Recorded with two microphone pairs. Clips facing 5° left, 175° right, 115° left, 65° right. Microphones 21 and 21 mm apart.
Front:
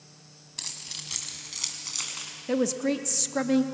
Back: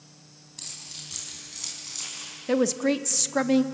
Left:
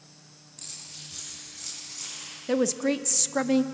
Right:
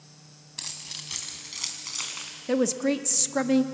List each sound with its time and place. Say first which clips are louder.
0.6 s keys jangling: front 3 dB, right 6 dB; 45° right, 3 m; by 2.3 s 50° right, 4 m
2.5 s a woman speaking: back 3 dB, even; 140° right, 0.7 m